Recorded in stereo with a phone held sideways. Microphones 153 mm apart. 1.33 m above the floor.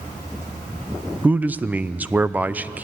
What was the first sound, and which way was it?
A man speaking, 10° right (ahead or behind).